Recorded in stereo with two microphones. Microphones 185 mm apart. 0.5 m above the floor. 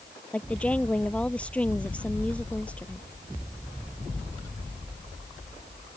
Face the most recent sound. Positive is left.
turn(degrees=5)  # may be behind; listen again after turning